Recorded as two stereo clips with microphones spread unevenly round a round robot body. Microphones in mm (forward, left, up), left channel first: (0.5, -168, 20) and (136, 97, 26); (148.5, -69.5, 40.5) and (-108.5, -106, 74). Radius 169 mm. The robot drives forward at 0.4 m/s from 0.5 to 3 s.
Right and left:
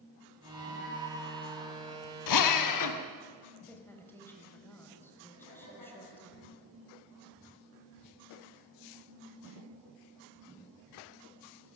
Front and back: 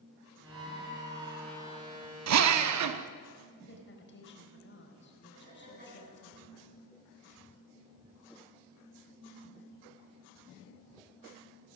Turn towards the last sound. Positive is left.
turn(degrees=-115)